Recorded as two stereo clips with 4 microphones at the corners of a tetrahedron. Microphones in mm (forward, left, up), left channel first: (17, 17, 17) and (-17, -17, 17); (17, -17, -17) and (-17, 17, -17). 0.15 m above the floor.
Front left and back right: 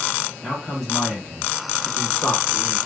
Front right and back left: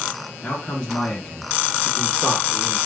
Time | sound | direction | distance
0.4 | a man speaking | 70° right | 1.7 m